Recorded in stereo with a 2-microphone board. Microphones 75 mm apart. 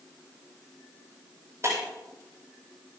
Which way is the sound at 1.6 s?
45° right (ahead or behind).